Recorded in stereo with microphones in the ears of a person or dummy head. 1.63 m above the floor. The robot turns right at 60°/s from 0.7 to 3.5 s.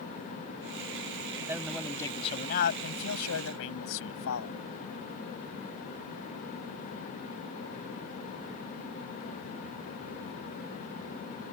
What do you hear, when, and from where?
1.5 s a man speaking: 15° right; by 4.5 s 105° left